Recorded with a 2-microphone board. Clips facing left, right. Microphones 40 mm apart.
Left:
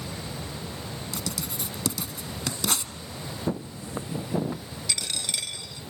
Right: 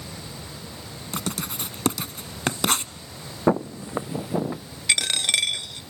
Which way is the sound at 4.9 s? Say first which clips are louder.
Right 10 dB; 65° right (ahead or behind).